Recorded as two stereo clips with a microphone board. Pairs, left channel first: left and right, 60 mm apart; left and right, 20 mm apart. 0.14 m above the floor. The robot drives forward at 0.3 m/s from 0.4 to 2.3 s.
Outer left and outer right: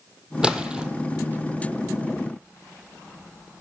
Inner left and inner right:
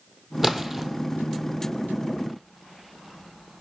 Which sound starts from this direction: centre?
A splash, at 0.4 s.